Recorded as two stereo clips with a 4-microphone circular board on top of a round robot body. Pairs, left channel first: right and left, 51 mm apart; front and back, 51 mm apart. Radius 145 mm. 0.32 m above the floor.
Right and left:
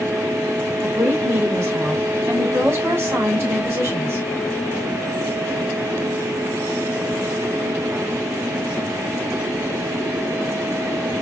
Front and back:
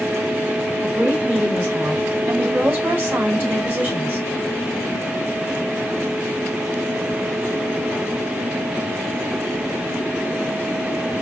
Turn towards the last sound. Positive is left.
turn(degrees=120)